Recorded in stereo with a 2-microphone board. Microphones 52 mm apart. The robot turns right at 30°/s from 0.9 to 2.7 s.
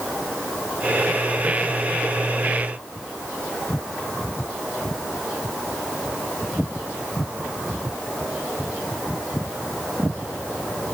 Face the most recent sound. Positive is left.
No sound to turn to.